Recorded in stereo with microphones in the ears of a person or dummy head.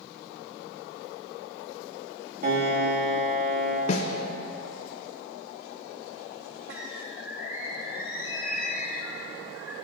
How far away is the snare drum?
About 0.6 m.